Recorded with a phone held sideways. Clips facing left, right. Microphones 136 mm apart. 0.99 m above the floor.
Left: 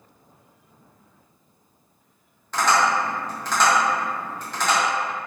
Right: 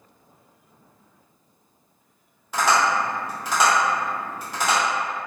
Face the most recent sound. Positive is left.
turn(degrees=-10)  # may be behind; listen again after turning